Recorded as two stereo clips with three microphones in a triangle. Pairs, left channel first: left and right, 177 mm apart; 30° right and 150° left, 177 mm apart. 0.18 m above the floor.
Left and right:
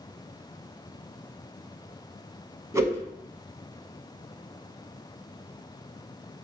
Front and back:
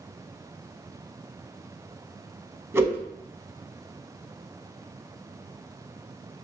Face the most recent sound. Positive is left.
turn(degrees=-145)